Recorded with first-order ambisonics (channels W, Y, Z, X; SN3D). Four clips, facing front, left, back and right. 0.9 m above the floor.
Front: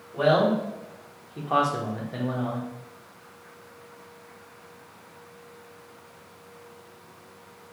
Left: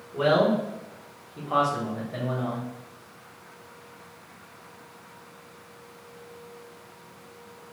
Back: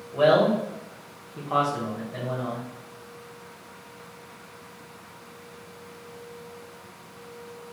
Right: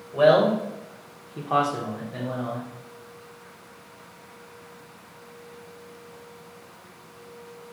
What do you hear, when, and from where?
0.1 s a man speaking: 125° right, 0.9 m; by 2.6 s 30° left, 0.8 m